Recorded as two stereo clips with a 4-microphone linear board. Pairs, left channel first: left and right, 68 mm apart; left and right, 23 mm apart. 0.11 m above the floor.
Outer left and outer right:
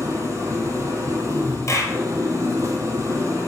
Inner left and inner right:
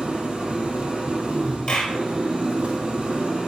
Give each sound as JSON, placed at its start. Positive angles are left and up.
{"t": 0.0, "sound": "an engine running", "side_deg": -45, "distance_m": 2.5}
{"t": 1.7, "sound": "a clap", "side_deg": 45, "distance_m": 2.5}